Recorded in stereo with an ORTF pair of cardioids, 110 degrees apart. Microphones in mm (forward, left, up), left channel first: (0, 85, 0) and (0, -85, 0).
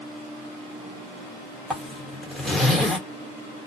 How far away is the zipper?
About 1.0 m.